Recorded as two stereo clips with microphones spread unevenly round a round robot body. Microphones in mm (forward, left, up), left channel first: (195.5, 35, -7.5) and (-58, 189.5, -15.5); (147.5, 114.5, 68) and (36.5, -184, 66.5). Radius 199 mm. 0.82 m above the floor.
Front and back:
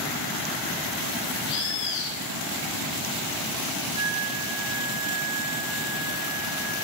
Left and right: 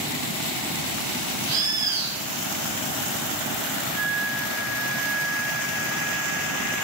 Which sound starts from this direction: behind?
A flute, at 4.0 s.